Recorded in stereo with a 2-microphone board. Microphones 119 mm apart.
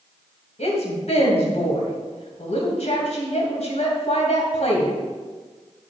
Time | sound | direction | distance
0.6 | a woman speaking | 65° left (ahead or behind) | 2.5 m